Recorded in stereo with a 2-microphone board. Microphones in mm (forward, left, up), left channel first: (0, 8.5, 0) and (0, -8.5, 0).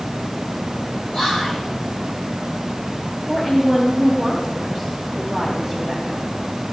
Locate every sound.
1.1 s whispering: 30° left (ahead or behind), 4 m
3.3 s a woman speaking: 5° left (ahead or behind), 3.5 m